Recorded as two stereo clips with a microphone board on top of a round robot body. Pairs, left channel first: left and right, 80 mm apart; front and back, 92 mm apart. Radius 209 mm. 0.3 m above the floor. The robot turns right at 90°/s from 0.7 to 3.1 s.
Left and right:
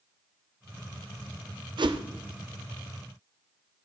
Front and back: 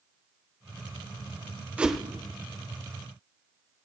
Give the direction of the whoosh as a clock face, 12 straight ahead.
3 o'clock.